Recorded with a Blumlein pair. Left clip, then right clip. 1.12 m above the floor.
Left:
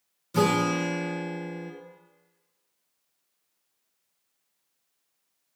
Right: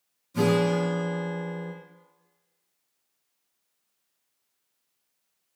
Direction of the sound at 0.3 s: 50° left.